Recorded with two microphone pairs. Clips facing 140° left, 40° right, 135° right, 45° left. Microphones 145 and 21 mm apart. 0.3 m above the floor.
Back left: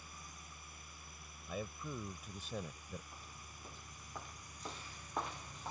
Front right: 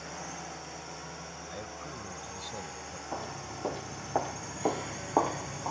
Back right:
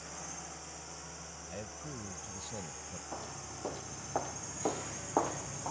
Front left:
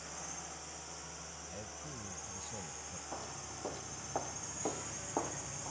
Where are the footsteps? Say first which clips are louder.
Front right 19 dB, back right 1 dB; 50° right; by 5.7 s 80° right.